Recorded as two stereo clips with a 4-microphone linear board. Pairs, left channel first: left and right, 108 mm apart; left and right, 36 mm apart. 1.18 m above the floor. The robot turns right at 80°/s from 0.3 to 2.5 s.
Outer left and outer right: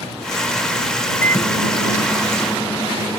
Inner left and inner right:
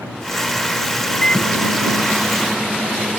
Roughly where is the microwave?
Ahead.